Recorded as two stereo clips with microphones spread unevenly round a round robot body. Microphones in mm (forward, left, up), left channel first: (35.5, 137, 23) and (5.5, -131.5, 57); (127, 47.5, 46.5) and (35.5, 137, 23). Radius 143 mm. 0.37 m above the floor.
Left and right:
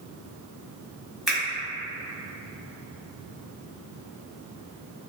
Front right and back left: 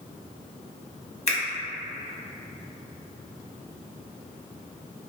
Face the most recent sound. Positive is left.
turn(degrees=-5)